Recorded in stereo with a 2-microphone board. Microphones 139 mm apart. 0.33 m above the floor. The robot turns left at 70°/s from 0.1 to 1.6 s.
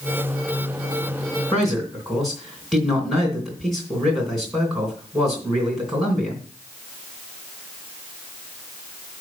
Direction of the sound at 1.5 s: 5° left (ahead or behind).